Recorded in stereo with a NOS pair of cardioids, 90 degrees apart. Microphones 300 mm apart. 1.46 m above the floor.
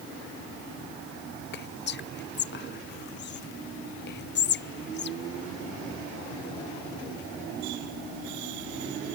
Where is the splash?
I don't hear a splash.